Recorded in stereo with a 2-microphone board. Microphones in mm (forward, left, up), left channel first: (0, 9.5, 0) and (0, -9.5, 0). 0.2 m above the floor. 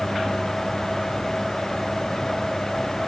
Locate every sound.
Only background noise.